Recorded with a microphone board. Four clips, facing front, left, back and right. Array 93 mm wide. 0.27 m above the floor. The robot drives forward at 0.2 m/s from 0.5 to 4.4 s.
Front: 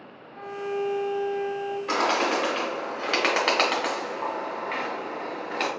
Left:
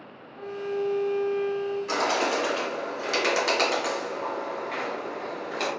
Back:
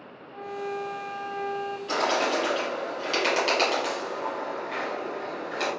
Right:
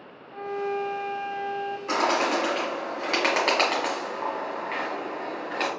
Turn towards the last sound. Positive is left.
turn(degrees=-45)